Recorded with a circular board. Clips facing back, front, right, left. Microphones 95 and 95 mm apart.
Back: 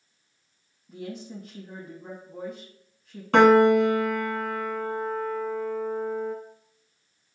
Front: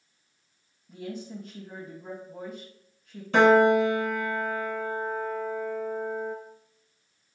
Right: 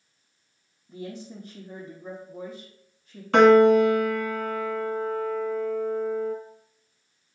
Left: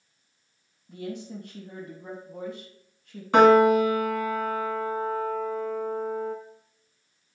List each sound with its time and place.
0.9 s a woman speaking: 90° left, 3 m
3.3 s a piano: 165° left, 1.4 m